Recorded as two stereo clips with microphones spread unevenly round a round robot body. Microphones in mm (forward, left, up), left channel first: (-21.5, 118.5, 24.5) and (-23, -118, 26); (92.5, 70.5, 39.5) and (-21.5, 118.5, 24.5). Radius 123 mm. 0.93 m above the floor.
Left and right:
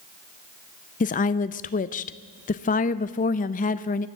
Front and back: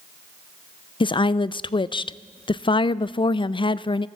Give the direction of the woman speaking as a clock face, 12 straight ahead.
11 o'clock.